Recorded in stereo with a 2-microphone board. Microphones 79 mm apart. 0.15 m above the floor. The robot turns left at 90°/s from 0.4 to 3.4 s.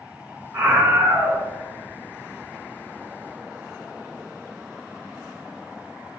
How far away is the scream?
About 2 m.